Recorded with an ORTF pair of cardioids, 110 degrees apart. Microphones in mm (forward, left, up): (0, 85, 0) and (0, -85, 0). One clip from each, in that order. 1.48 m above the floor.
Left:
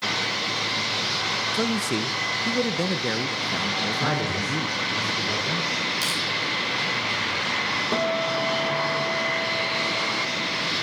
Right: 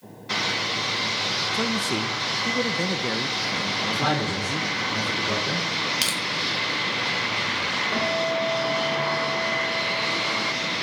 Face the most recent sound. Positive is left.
turn(degrees=35)